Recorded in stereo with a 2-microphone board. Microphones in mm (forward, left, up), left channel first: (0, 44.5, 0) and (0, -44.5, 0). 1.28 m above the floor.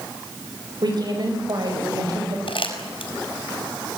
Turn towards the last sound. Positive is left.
turn(degrees=75)  # may be behind; listen again after turning